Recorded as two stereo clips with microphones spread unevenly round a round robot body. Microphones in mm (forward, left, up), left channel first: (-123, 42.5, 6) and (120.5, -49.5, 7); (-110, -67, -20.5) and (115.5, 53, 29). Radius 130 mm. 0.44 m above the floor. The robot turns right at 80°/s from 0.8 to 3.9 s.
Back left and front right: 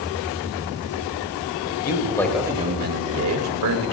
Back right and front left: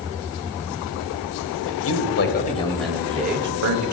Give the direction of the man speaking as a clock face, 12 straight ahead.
5 o'clock.